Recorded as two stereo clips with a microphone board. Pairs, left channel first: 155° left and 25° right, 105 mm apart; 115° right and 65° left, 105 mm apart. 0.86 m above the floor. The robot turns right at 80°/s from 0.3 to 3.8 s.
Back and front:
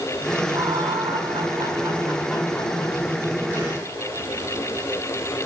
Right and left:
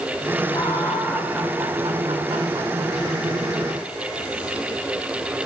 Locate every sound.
0.5 s laughter: 80° right, 2.5 m; by 3.0 s 115° left, 2.5 m